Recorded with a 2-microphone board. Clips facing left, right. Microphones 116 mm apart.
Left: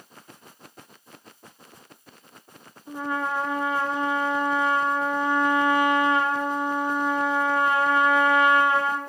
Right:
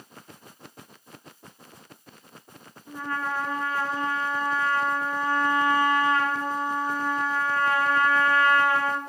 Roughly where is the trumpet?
Centre.